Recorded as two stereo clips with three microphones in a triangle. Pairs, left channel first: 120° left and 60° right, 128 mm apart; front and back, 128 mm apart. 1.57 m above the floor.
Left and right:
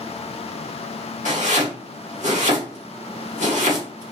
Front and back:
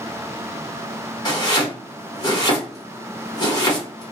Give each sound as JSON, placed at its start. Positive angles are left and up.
{"t": 1.2, "sound": "chopping", "azimuth_deg": -55, "distance_m": 1.7}